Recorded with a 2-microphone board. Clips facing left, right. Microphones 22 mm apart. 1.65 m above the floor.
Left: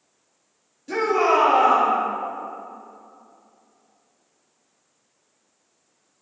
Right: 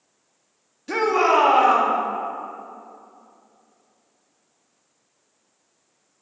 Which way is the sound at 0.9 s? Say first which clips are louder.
Right 1 dB; 30° right (ahead or behind).